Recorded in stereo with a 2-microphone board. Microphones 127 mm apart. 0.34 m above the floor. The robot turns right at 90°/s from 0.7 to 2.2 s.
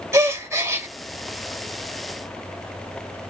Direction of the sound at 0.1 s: 20° right (ahead or behind).